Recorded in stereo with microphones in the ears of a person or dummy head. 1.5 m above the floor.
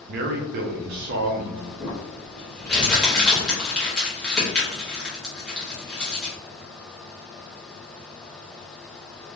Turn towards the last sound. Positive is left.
turn(degrees=5)  # may be behind; listen again after turning